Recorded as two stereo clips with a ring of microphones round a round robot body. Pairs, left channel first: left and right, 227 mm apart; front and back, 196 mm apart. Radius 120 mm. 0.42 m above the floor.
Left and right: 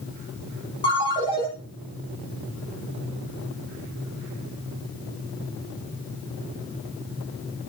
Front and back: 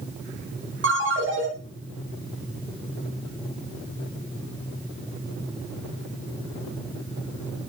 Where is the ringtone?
160° left, 4 m.